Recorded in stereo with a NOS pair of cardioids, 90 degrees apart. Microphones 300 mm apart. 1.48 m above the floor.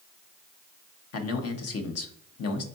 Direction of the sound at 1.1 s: 55° left.